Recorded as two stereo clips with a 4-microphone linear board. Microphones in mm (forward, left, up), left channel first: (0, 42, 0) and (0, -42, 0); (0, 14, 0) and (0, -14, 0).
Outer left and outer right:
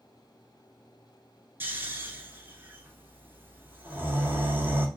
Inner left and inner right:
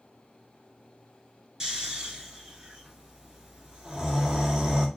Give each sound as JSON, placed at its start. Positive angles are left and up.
{"t": 1.6, "sound": "snoring", "side_deg": -25, "distance_m": 1.3}